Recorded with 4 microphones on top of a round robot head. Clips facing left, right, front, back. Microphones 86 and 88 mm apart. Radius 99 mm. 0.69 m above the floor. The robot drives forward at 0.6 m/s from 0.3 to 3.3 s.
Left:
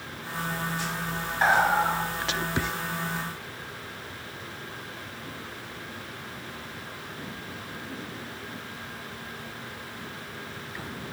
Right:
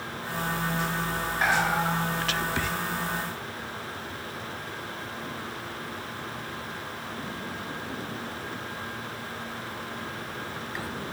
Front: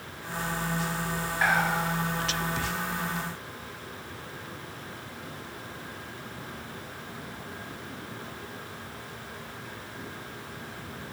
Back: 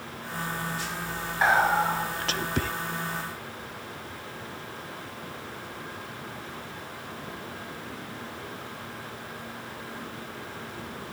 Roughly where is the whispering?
Behind left.